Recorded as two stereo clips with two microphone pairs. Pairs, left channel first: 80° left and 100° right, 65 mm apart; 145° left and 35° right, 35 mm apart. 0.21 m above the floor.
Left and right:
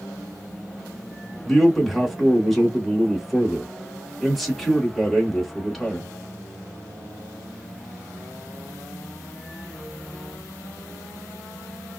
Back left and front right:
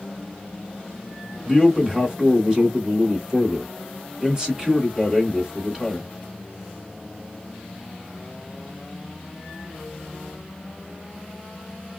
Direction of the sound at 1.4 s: 10° right.